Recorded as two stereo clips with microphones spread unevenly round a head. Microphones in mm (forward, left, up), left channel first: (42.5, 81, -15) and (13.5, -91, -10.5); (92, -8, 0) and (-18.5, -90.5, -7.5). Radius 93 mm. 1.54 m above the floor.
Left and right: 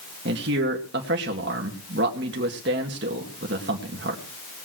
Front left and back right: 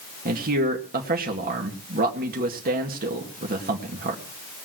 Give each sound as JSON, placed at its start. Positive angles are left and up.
{"t": 0.2, "sound": "a man speaking", "azimuth_deg": -135, "distance_m": 2.0}